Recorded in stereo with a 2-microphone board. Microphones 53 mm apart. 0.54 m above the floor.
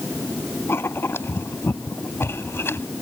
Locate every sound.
0.7 s writing: 55° left (ahead or behind)